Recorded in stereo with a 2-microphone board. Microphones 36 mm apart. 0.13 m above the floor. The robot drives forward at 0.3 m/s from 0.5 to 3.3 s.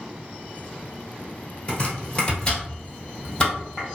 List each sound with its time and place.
1.7 s chopping: 25° left (ahead or behind), 1.0 m; by 3.9 s 20° left (ahead or behind), 1.4 m